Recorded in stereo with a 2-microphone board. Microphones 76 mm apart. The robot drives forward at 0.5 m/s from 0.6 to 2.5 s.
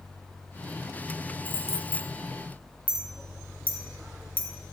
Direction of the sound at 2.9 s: 20° right (ahead or behind).